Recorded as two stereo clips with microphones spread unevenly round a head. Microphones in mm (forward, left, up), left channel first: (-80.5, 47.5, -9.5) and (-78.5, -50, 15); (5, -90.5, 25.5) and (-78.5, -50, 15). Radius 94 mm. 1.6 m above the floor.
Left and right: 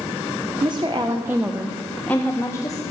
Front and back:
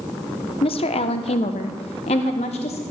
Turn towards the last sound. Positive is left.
turn(degrees=20)